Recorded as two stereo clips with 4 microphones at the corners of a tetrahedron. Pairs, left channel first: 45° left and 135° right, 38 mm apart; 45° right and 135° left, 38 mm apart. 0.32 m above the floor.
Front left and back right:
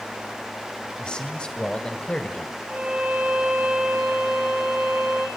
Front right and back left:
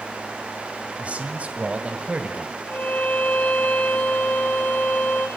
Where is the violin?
80° right, 4.5 m.